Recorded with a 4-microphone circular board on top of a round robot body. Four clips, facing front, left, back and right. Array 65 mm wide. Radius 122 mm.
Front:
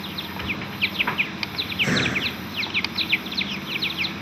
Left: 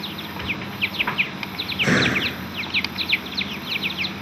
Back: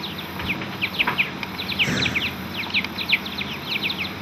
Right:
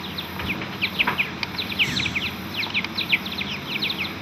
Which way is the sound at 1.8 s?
85° left.